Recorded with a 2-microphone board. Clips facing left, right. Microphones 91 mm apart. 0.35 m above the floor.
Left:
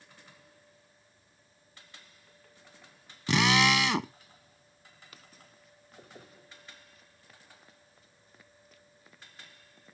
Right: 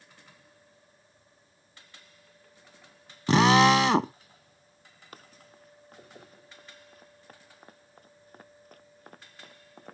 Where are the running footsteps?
45° right (ahead or behind); by 9.9 s 65° right (ahead or behind).